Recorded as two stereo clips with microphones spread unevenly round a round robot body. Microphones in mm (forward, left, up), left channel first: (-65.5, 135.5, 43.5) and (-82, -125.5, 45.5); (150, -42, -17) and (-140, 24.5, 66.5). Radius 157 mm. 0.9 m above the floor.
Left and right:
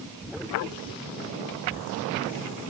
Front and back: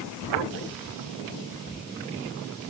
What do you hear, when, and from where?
Only background noise.